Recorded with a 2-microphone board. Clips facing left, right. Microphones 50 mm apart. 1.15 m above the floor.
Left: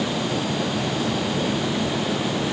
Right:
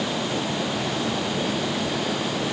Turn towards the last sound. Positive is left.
No sound to turn to.